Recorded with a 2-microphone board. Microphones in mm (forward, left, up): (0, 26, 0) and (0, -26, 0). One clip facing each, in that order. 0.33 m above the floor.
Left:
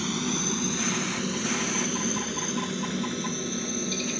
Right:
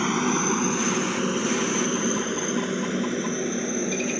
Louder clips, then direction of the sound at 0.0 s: Right 6 dB; 40° right (ahead or behind).